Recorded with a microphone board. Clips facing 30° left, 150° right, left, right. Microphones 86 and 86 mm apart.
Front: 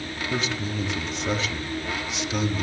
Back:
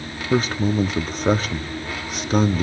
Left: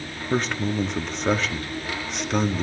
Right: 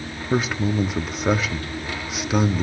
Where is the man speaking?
175° right, 1.4 m.